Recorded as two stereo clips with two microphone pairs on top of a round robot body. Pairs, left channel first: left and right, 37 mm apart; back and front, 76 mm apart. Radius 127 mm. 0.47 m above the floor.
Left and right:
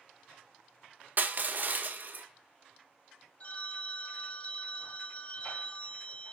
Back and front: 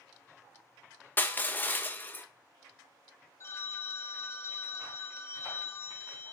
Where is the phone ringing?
135° left, 0.7 m.